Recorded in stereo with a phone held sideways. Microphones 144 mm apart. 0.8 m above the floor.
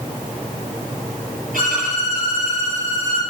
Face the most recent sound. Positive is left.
turn(degrees=-70)  # may be behind; listen again after turning